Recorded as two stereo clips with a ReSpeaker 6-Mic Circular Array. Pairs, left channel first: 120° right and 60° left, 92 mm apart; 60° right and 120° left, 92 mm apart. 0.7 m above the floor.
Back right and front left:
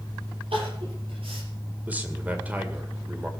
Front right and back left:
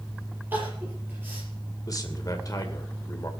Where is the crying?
50° left, 5 m.